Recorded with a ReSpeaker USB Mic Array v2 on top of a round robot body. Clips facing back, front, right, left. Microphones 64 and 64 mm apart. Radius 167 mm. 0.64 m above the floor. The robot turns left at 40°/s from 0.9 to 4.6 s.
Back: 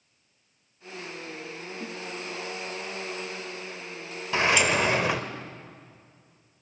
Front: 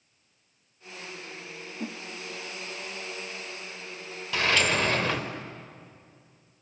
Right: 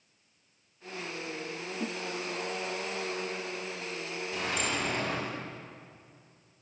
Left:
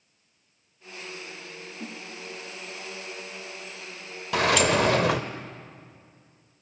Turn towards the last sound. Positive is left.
turn(degrees=105)